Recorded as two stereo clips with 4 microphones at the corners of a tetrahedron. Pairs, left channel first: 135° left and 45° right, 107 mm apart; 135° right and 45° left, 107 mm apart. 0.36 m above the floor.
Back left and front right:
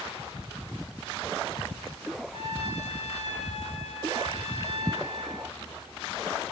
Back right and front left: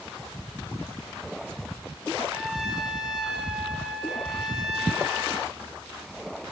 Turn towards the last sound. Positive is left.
turn(degrees=130)